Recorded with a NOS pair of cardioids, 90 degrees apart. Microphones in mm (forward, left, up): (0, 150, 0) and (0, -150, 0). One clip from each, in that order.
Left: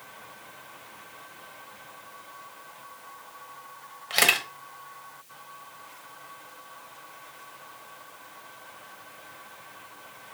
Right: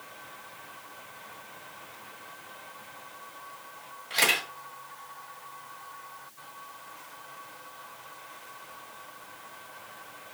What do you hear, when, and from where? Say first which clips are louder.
4.1 s a camera shutter: left 3 dB; 40° left, 0.9 m